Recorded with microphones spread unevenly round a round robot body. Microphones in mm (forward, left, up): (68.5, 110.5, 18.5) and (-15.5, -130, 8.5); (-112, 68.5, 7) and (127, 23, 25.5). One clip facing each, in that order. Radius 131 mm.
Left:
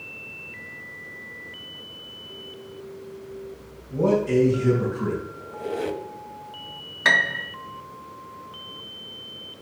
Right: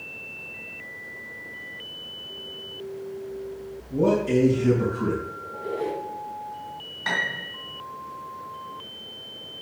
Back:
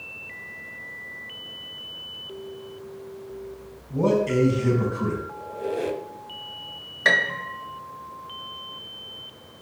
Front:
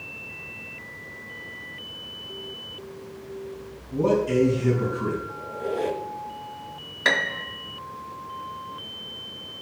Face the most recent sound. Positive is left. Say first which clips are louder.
# left 4 dB, even
turn(degrees=75)